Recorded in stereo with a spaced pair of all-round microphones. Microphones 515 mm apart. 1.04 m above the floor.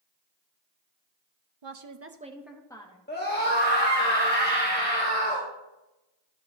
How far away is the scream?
About 1.4 m.